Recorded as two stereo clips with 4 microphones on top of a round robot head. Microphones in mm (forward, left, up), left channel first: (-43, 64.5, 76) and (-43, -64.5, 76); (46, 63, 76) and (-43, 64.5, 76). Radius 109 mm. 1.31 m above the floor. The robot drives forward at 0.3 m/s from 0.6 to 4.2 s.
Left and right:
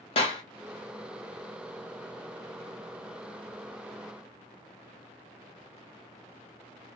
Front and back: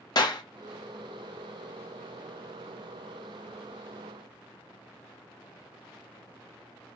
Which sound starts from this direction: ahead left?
A clap, at 0.1 s.